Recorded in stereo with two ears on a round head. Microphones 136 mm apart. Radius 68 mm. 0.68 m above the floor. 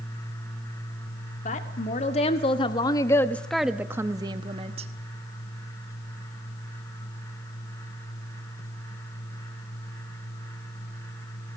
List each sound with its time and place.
1.4 s a woman speaking: 50° left (ahead or behind), 1.9 m; by 4.9 s 45° right (ahead or behind), 1.3 m